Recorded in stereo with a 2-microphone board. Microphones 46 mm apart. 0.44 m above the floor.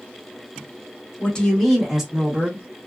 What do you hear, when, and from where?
1.2 s a woman speaking: 25° left (ahead or behind), 1.0 m; by 2.6 s 35° right (ahead or behind), 1.1 m